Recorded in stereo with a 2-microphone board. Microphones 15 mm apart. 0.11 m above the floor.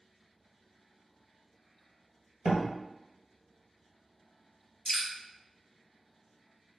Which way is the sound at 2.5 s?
25° right (ahead or behind).